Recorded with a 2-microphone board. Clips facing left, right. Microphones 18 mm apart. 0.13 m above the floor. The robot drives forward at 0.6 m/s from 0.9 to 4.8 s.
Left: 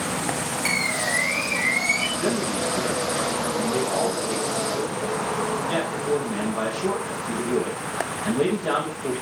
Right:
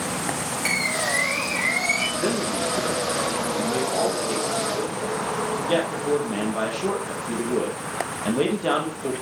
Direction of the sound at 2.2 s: 35° right (ahead or behind).